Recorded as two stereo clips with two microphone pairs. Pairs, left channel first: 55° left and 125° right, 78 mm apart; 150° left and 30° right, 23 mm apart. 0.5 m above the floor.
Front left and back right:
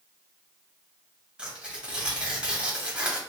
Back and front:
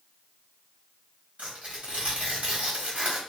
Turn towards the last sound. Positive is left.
turn(degrees=-45)